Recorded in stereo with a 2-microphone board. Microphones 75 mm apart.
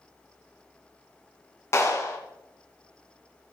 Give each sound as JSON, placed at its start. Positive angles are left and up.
{"t": 1.7, "sound": "a clap", "side_deg": 40, "distance_m": 2.5}